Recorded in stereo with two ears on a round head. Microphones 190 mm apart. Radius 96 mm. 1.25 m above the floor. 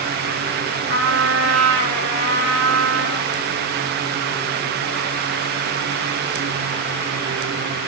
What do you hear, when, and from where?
0.9 s a trumpet: 35° right (ahead or behind), 2.5 m